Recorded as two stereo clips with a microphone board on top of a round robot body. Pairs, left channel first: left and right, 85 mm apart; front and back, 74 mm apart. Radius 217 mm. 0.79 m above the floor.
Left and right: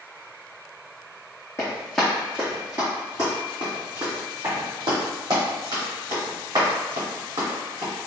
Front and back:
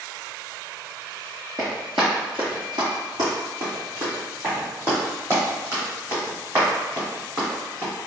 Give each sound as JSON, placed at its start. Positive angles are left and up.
{"t": 1.6, "sound": "running footsteps", "azimuth_deg": 145, "distance_m": 0.9}